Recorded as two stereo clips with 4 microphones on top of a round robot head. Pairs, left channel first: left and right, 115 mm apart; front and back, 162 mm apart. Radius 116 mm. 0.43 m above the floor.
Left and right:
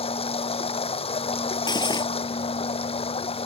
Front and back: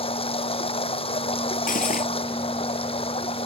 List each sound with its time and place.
0.0 s running water: 55° left
1.7 s cutlery clinking: 40° left